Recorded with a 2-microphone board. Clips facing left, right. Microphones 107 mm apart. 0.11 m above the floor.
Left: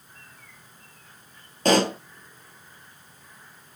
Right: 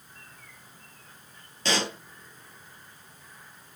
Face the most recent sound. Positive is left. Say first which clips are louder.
# left 9 dB
turn(degrees=50)  # may be behind; listen again after turning